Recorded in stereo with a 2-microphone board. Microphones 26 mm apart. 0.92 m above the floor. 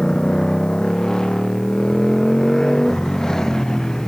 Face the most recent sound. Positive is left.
turn(degrees=20)  # may be behind; listen again after turning